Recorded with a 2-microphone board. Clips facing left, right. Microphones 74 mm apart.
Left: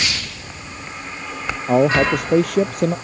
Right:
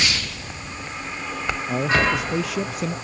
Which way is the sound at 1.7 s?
60° left (ahead or behind).